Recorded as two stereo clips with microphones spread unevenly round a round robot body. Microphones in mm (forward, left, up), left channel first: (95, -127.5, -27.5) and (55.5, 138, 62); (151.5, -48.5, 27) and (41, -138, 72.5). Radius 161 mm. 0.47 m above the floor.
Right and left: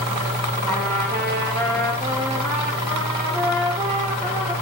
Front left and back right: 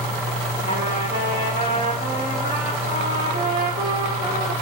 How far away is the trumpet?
About 3 m.